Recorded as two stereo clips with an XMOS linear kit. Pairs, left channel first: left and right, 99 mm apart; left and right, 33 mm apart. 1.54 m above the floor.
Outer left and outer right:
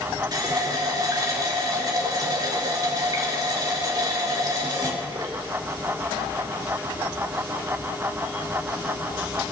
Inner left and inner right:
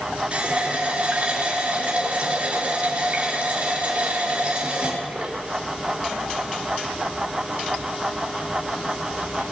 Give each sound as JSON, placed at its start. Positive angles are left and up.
{"t": 0.3, "sound": "a running tap", "side_deg": -40, "distance_m": 2.0}